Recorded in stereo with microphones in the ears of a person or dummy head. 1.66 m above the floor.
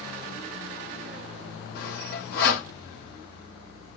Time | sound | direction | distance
1.8 | sawing | 55° left (ahead or behind) | 1.9 m